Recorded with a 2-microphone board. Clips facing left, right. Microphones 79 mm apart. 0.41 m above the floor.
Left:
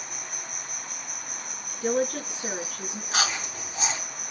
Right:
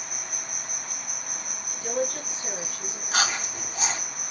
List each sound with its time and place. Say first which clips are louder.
0.0 s an insect: even; 70° right (ahead or behind), 2 m
1.8 s a woman speaking: left 3 dB; 70° left (ahead or behind), 4.5 m
3.1 s chewing: right 2 dB; centre (ahead or behind), 2.5 m